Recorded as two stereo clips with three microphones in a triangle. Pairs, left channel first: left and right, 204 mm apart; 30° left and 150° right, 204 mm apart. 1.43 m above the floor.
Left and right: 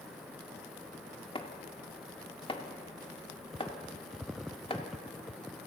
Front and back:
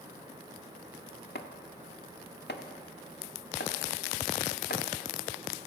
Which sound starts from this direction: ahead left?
Chopping, at 1.4 s.